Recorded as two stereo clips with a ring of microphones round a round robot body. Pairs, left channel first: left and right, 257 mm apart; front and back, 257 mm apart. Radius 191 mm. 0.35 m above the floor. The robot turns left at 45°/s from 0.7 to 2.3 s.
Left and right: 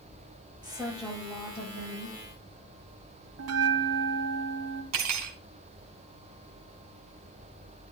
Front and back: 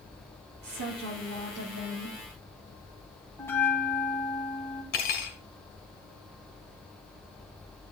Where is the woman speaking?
165° right, 9.5 m; by 2.2 s 130° left, 9.5 m.